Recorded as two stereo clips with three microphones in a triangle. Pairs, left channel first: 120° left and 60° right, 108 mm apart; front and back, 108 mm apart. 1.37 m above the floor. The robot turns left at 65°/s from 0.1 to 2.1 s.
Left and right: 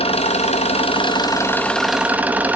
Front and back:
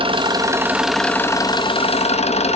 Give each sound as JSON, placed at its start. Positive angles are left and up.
{"t": 0.0, "sound": "an engine running", "azimuth_deg": 145, "distance_m": 1.5}